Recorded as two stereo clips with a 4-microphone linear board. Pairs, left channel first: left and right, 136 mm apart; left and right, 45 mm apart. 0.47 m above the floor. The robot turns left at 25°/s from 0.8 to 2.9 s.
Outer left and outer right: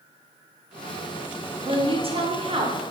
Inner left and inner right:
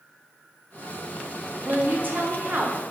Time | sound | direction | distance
1.6 | a woman speaking | 75° right | 1.1 m